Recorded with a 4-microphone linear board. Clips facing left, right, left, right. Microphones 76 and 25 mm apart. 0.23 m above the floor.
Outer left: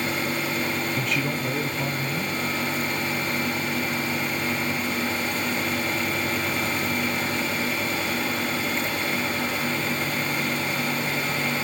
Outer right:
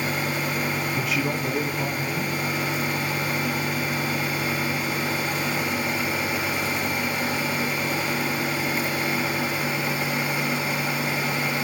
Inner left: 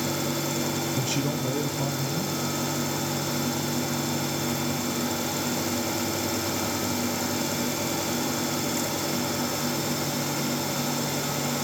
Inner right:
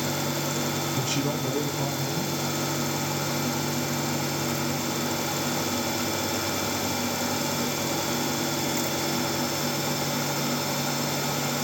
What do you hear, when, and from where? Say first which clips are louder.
0.9 s a man speaking: outer right 1 dB, even; 5° right (ahead or behind), 1.2 m